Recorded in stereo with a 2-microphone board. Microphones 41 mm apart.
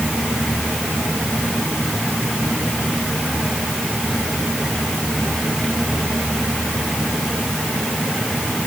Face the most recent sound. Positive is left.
No sound to turn to.